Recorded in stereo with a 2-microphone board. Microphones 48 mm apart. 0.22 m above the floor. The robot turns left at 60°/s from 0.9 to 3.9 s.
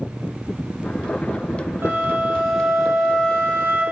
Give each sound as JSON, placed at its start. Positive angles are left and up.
{"t": 1.8, "sound": "a flute", "azimuth_deg": -125, "distance_m": 2.0}